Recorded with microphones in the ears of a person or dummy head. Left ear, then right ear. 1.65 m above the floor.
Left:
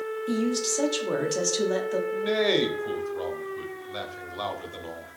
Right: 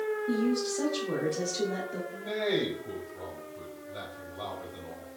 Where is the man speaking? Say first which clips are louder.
Left 6 dB; 75° left (ahead or behind), 0.9 m.